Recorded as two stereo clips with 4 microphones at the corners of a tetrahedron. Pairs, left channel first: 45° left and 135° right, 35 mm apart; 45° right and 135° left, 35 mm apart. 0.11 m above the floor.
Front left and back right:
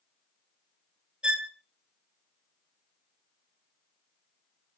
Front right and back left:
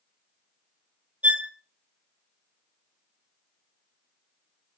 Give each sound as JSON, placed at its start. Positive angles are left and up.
{"t": 1.2, "sound": "a violin", "azimuth_deg": 165, "distance_m": 0.7}